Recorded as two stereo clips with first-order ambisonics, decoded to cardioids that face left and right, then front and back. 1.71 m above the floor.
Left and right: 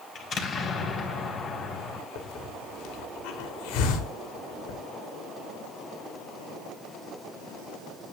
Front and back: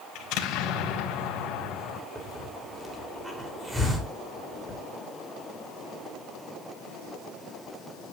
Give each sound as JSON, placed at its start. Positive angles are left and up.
{"t": 0.1, "sound": "an explosion", "azimuth_deg": 30, "distance_m": 4.0}
{"t": 2.1, "sound": "a hiss", "azimuth_deg": 100, "distance_m": 4.0}